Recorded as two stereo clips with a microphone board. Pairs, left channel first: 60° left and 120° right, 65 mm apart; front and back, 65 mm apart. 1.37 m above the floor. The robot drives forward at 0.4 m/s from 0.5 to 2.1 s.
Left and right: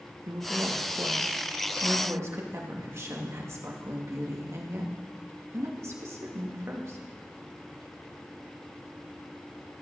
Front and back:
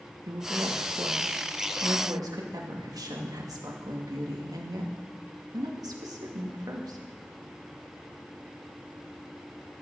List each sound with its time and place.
0.3 s a woman speaking: 160° right, 1.5 m; by 7.0 s 165° right, 2 m